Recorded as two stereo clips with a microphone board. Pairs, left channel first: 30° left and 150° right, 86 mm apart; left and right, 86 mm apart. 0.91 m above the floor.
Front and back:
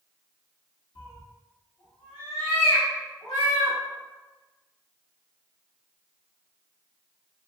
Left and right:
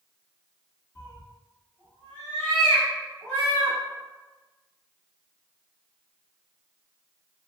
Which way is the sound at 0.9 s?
35° left.